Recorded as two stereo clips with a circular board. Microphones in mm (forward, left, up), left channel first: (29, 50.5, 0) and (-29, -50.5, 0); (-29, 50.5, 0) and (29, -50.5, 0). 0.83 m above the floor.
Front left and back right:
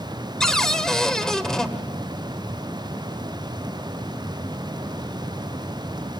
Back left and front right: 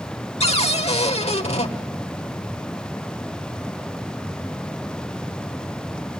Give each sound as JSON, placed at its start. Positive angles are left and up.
{"t": 0.4, "sound": "a cupboard door", "azimuth_deg": 145, "distance_m": 1.2}